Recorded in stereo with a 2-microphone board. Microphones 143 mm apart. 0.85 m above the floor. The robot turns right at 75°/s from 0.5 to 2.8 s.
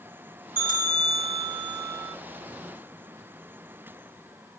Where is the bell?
105° right, 3 m; by 2.1 s 15° left, 3 m.